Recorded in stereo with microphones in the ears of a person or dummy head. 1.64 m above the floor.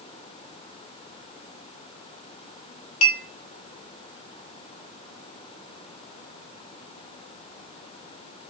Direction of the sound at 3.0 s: 50° left (ahead or behind).